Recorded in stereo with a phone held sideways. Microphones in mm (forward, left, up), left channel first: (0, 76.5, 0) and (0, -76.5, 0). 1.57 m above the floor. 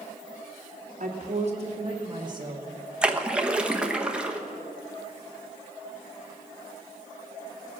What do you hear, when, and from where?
1.0 s a woman speaking: 55° right (ahead or behind), 1.9 m; by 2.7 s 25° right (ahead or behind), 2.5 m
3.0 s a splash: 5° right (ahead or behind), 0.9 m